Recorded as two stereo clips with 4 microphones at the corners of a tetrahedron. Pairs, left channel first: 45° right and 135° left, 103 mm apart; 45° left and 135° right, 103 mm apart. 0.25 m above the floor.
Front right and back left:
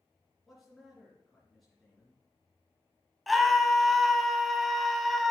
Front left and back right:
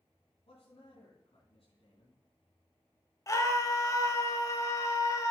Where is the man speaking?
45° left, 3 m.